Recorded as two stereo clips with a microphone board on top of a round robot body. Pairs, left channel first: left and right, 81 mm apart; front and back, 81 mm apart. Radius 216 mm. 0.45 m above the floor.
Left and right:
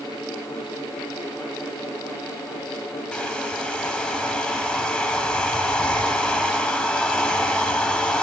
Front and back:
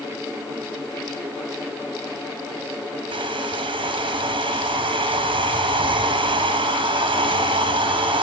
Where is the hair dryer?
170° left, 0.6 m.